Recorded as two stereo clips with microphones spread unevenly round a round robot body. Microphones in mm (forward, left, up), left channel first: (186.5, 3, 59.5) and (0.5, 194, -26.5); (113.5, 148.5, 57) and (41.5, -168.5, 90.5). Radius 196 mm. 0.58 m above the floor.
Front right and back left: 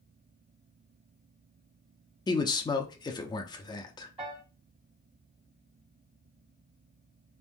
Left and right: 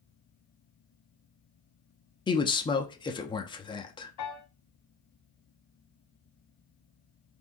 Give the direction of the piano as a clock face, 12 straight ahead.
10 o'clock.